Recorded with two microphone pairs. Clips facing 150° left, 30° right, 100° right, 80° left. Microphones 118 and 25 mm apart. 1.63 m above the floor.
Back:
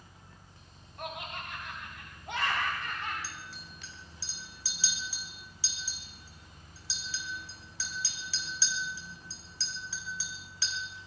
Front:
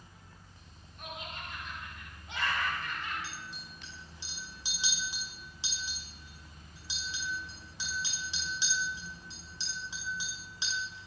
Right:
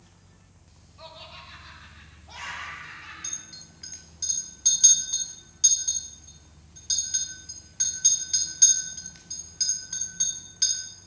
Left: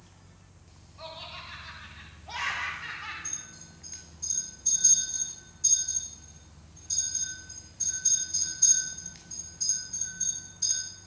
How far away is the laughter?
About 3.5 m.